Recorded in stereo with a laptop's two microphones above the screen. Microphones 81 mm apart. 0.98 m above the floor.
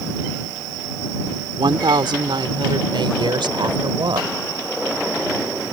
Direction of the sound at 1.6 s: 75° right (ahead or behind).